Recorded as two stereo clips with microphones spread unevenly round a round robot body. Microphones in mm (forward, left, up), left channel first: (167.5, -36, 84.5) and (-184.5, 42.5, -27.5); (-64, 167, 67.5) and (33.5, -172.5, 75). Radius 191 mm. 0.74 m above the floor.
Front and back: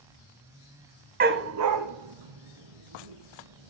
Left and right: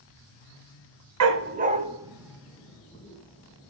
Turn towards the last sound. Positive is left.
turn(degrees=-170)